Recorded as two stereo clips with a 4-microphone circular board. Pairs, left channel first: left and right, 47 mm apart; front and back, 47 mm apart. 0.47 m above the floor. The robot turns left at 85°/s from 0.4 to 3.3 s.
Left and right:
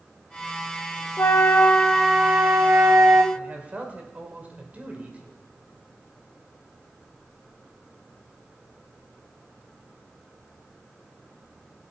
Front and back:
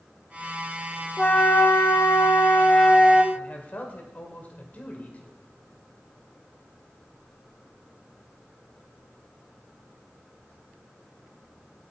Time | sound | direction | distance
1.2 | a flute | 75° left | 0.7 m
3.3 | a man speaking | 40° right | 1.8 m